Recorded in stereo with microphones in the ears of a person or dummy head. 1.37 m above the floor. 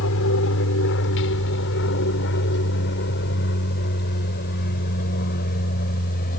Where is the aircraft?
70° left (ahead or behind); by 6.4 s 45° left (ahead or behind).